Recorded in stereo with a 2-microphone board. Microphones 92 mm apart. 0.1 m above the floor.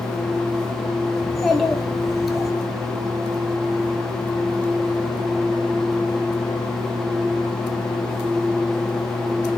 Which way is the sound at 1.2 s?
Centre (ahead or behind).